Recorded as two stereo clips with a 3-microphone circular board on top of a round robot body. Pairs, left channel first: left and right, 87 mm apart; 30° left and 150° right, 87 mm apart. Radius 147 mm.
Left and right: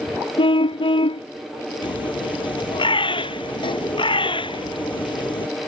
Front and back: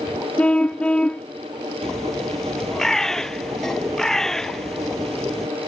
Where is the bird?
115° left.